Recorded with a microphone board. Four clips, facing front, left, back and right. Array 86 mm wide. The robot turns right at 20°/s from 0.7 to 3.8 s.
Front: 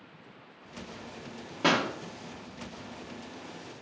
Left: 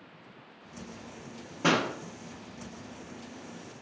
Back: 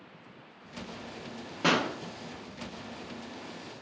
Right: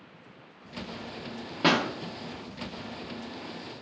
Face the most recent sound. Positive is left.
turn(degrees=-40)